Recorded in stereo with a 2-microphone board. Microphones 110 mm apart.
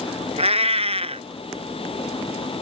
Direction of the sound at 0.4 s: 70° right (ahead or behind).